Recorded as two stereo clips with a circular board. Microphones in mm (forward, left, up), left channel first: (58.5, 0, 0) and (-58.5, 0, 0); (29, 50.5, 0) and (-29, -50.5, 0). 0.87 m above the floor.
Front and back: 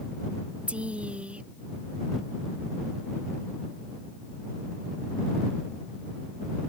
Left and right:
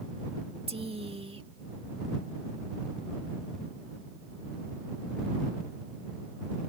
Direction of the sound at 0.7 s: 100° right.